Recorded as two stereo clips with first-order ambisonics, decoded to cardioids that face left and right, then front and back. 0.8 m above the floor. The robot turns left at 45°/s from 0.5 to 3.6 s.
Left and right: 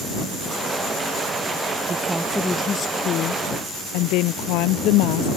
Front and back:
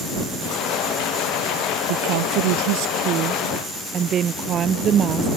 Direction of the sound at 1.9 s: 165° right.